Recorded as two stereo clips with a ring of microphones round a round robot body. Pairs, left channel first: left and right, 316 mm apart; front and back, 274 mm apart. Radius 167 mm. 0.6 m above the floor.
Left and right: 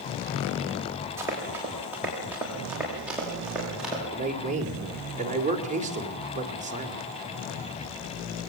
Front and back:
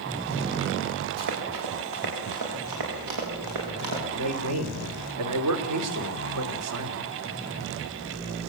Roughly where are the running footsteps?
Behind.